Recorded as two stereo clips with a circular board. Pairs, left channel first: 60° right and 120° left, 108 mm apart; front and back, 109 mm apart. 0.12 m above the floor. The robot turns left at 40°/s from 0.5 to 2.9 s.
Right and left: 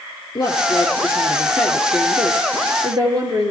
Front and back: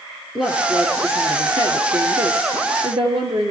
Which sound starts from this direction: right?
A woman speaking, at 0.3 s.